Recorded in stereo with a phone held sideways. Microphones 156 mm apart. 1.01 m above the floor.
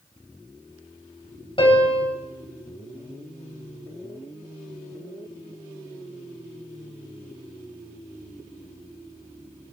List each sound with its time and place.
1.6 s a piano: 35° left (ahead or behind), 3 m